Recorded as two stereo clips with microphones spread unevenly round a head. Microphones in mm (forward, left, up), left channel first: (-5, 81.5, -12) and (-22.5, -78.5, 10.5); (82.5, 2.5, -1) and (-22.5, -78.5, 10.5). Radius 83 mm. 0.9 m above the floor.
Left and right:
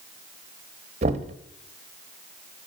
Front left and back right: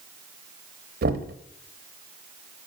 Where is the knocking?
150° right, 0.8 m.